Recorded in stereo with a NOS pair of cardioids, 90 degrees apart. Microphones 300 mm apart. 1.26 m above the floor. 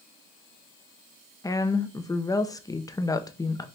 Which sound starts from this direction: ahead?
A woman speaking, at 1.4 s.